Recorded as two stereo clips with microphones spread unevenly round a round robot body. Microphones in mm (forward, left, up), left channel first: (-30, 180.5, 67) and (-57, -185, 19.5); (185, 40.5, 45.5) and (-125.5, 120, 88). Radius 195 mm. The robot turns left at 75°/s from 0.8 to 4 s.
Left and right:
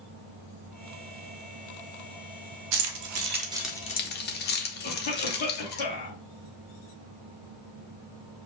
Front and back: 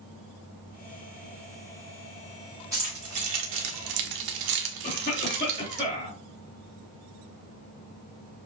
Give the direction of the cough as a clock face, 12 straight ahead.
10 o'clock.